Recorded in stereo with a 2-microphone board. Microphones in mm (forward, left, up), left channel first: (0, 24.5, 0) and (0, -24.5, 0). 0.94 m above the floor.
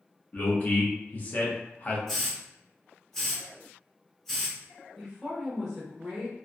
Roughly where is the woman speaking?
Centre.